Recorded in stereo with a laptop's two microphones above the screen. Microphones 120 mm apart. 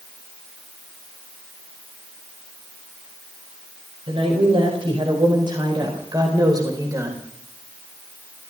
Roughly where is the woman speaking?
Right.